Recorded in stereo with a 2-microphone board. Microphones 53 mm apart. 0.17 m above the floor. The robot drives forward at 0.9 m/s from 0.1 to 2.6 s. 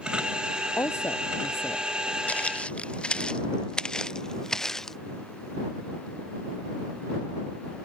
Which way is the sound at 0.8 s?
55° left (ahead or behind).